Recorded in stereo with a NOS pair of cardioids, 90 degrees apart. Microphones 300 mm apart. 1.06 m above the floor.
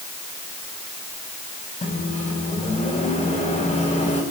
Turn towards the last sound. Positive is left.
turn(degrees=25)